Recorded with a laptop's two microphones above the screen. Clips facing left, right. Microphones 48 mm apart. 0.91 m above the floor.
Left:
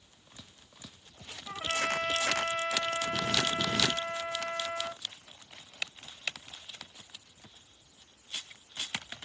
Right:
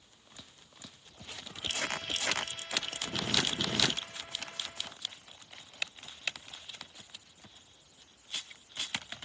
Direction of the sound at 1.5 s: 85° left.